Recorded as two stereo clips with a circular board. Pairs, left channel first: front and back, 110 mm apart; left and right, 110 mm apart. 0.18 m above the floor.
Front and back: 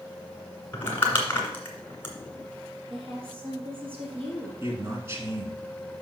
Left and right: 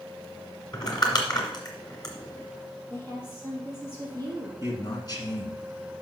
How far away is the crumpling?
About 2 m.